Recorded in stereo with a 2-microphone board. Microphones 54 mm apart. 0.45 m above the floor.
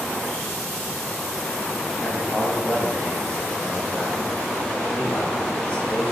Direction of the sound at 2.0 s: 15° left (ahead or behind).